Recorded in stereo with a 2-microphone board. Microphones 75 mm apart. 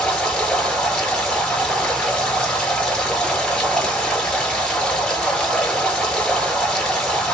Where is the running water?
10° left (ahead or behind), 1.2 m.